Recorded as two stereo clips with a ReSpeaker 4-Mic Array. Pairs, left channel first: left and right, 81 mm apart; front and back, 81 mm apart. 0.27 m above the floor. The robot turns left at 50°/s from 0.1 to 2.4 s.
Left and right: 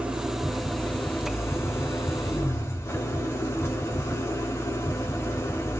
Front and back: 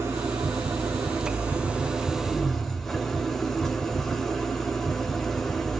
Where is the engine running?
160° right, 1.1 m; by 5.8 s 85° left, 1.1 m.